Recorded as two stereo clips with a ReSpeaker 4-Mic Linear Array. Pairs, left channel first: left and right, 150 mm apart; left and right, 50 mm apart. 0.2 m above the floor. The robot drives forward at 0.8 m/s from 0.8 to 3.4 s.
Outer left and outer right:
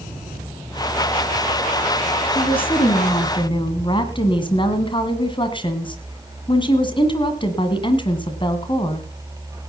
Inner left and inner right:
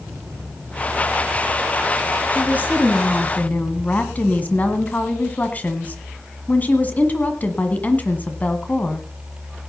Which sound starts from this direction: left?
A woman speaking, at 2.3 s.